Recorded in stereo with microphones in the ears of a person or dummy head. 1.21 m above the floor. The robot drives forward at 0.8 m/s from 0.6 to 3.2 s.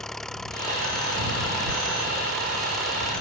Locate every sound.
0.0 s an engine running: 5° left (ahead or behind)